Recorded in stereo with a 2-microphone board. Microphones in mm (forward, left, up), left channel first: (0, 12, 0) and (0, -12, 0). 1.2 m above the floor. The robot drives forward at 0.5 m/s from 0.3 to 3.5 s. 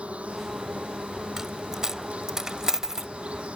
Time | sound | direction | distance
0.0 | an insect | 65° right (ahead or behind) | ?
1.4 | a dropped coin | 20° right (ahead or behind) | ?